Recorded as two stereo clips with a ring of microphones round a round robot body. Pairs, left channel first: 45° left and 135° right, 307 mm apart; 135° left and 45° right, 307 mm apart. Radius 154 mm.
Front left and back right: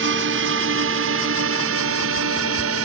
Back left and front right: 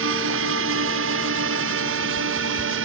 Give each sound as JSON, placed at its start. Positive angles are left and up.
{"t": 0.0, "sound": "a drone", "azimuth_deg": -90}